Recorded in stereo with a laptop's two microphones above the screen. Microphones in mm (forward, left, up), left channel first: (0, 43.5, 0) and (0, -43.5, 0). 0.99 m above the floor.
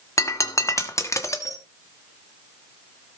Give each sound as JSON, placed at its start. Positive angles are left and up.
{"t": 0.2, "sound": "breaking glass", "side_deg": 35, "distance_m": 1.1}